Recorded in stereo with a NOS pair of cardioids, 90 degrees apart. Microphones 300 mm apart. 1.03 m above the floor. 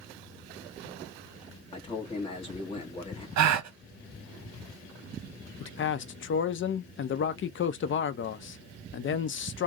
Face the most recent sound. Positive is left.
turn(degrees=45)